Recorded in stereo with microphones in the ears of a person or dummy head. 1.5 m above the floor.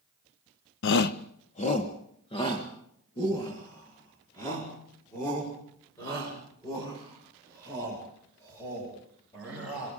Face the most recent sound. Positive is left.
turn(degrees=15)  # may be behind; listen again after turning